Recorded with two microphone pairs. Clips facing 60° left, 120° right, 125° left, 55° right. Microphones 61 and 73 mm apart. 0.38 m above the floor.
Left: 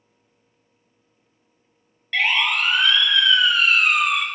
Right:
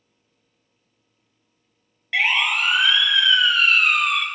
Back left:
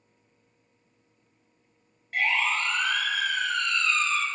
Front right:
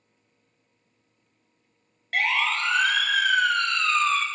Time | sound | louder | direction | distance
2.1 | a siren | even, front right 1 dB | 45° right | 5 m